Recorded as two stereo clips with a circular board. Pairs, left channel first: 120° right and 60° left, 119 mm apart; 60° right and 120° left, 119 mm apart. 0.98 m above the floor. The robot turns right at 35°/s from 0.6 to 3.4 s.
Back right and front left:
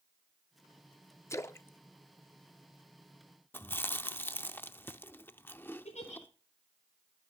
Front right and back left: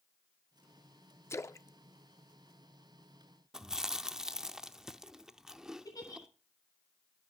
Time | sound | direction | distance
1.3 | a splash | 90° right | 0.5 m
3.5 | chewing | 165° right | 0.6 m
5.8 | a giggle | 115° right | 4 m